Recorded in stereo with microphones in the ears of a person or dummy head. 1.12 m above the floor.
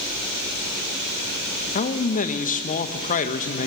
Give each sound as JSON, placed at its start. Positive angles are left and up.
{"t": 1.8, "sound": "a man speaking", "side_deg": 45, "distance_m": 1.3}